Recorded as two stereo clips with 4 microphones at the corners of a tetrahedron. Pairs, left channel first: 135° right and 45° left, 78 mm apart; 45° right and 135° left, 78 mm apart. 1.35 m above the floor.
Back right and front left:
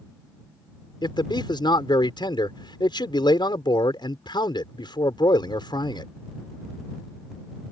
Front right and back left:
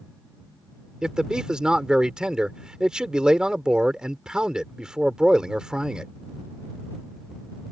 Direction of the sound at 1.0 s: 145° right.